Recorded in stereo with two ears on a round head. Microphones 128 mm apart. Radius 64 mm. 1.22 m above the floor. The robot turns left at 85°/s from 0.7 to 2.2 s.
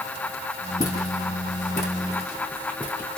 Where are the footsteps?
25° left (ahead or behind), 3 m; by 3.2 s 5° left (ahead or behind), 3 m.